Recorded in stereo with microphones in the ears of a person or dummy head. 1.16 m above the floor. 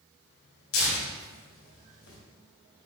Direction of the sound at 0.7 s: 75° left (ahead or behind).